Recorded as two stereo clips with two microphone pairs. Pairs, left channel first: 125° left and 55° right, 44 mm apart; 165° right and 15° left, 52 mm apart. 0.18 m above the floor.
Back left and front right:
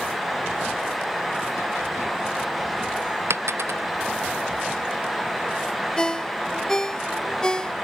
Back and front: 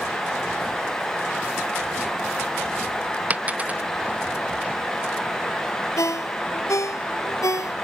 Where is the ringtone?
160° right.